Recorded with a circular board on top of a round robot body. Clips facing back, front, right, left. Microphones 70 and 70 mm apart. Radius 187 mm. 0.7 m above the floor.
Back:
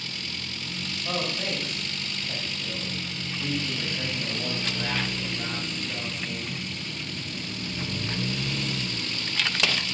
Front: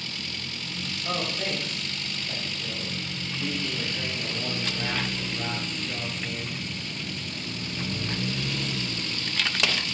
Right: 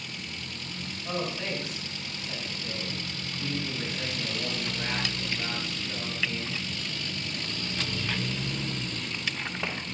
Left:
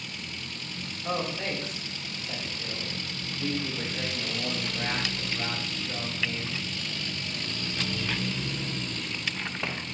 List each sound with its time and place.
1.0 s a man speaking: 50° left, 4 m